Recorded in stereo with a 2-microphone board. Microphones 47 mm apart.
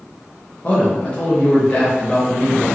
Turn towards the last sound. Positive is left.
turn(degrees=30)  # may be behind; listen again after turning